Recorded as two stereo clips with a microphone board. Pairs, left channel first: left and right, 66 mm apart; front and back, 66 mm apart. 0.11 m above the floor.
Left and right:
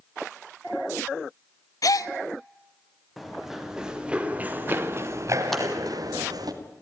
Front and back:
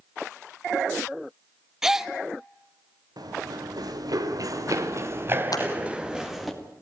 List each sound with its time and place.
1.8 s a gasp: 100° left, 0.6 m
3.2 s running footsteps: straight behind, 3.5 m; by 6.5 s 90° right, 3 m
5.5 s scissors: 5° left, 3 m